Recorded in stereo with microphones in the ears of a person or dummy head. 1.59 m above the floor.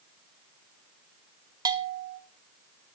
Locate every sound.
1.6 s a bell: 20° right (ahead or behind), 1.0 m